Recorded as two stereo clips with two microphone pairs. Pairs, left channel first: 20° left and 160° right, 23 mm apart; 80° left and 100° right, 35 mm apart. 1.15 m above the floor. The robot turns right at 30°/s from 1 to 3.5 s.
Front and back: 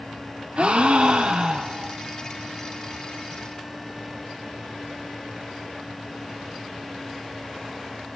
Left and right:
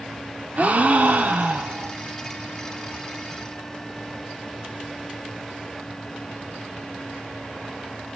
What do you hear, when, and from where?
0.6 s a gasp: 140° right, 1.0 m; by 1.9 s 110° right, 1.0 m